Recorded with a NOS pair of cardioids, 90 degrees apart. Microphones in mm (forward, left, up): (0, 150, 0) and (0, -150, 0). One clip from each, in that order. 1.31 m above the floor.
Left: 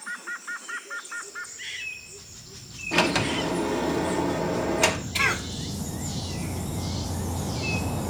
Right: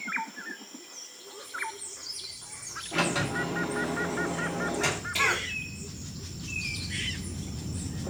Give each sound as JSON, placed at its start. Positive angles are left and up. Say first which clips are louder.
{"t": 2.9, "sound": "a sliding door", "louder": "left 5 dB", "azimuth_deg": 65, "distance_m": 1.9}
{"t": 5.2, "sound": "a cough", "louder": "even", "azimuth_deg": 20, "distance_m": 3.0}